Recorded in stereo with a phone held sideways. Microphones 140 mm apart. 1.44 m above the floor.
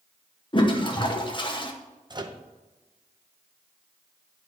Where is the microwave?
30° right (ahead or behind), 0.6 m.